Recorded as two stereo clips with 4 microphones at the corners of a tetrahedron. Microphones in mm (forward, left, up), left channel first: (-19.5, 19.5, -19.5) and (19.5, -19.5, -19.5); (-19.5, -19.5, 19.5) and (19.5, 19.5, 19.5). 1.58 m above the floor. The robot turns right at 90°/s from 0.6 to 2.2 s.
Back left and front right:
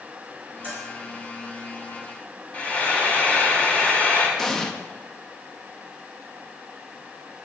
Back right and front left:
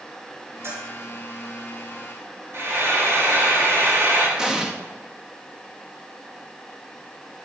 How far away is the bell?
About 4.5 m.